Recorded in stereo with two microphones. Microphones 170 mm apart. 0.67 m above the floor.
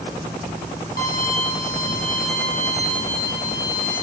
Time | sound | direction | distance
1.0 | a violin | 60° left (ahead or behind) | 1.1 m